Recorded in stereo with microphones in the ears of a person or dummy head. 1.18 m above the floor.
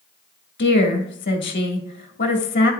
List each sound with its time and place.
0.6 s a woman speaking: 40° left (ahead or behind), 1.5 m